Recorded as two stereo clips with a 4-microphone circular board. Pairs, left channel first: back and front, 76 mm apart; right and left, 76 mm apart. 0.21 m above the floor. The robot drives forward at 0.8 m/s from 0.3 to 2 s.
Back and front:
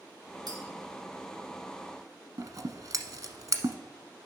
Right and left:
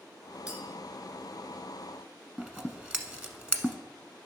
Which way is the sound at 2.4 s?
20° left.